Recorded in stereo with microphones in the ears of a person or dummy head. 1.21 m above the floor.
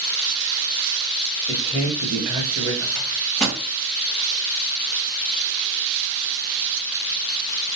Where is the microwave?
5° left (ahead or behind), 2 m.